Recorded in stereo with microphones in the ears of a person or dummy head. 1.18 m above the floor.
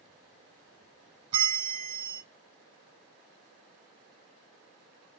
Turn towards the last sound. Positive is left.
turn(degrees=-25)  # may be behind; listen again after turning